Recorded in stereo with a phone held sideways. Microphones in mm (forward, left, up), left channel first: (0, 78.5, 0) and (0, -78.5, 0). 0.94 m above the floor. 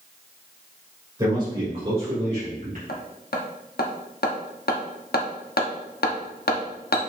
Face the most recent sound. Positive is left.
turn(degrees=90)